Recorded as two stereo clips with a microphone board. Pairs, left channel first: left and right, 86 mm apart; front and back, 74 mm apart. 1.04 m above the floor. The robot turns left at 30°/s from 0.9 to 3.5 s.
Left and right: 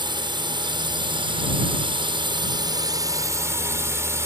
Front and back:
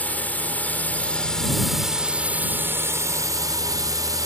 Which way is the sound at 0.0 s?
70° right.